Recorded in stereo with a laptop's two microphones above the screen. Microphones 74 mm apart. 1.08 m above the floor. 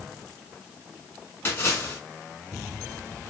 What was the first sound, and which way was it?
A splash, 35° left (ahead or behind).